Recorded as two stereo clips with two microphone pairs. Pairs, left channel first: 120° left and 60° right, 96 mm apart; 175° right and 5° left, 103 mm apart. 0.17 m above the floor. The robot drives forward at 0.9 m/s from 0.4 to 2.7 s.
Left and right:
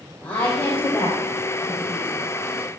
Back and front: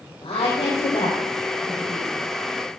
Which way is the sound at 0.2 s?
165° right.